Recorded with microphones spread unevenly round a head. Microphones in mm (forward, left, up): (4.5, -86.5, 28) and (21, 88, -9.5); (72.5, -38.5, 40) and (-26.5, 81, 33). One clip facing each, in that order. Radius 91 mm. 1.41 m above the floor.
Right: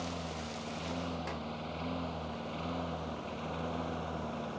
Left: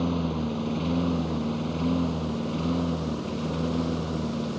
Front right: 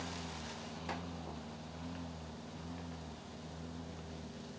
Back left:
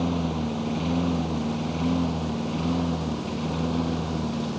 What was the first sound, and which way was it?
A lawn mower, 115° left.